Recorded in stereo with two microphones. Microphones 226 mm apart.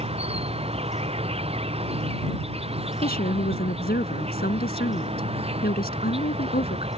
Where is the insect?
25° right (ahead or behind).